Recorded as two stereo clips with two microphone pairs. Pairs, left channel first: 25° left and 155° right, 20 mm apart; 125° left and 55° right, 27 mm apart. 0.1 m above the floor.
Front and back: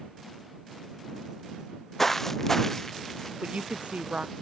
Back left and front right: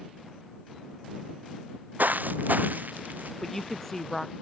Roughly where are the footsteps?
Ahead right.